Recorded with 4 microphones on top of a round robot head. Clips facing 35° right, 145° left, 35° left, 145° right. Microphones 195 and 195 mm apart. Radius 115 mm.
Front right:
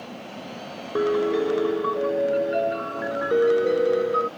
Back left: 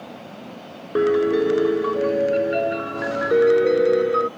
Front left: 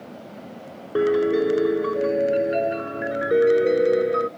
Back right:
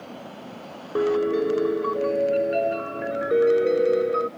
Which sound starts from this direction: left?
A piano, at 0.9 s.